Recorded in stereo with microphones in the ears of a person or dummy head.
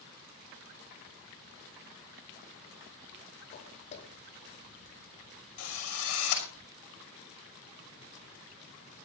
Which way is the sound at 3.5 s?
25° left (ahead or behind).